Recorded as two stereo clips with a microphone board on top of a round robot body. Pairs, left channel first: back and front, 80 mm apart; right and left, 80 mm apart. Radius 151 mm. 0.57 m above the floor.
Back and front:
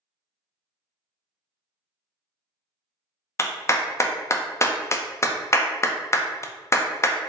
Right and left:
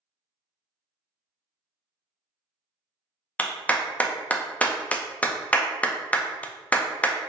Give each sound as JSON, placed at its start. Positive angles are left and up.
{"t": 3.4, "sound": "a clap", "azimuth_deg": -155, "distance_m": 0.6}